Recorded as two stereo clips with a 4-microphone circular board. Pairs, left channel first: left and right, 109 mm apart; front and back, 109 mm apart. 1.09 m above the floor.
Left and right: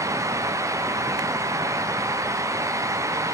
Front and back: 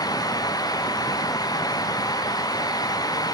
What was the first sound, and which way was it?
Only background noise.